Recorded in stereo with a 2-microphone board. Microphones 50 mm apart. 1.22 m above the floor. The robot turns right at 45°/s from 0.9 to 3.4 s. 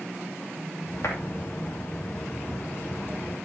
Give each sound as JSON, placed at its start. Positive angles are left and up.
{"t": 1.0, "sound": "a clap", "side_deg": 65, "distance_m": 2.5}